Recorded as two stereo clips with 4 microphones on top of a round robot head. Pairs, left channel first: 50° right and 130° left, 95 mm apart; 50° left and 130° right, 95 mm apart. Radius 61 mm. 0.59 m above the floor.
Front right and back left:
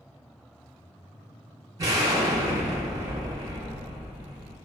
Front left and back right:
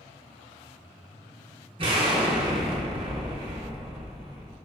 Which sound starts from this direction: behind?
An explosion, at 1.8 s.